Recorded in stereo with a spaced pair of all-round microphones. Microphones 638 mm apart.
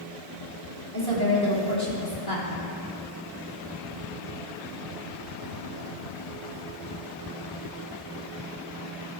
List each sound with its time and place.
0.9 s a woman speaking: 35° left (ahead or behind), 3 m